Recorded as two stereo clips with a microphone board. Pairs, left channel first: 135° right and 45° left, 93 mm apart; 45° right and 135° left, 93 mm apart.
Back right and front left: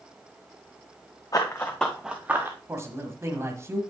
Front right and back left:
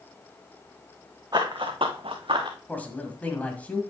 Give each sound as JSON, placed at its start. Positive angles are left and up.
{"t": 1.3, "sound": "running footsteps", "azimuth_deg": 175, "distance_m": 1.4}
{"t": 2.7, "sound": "a man speaking", "azimuth_deg": 15, "distance_m": 1.5}